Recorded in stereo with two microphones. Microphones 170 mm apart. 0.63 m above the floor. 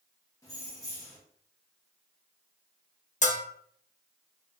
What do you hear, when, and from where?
0.4 s keys jangling: 20° left (ahead or behind), 1.1 m
3.2 s a bell: 45° left (ahead or behind), 0.5 m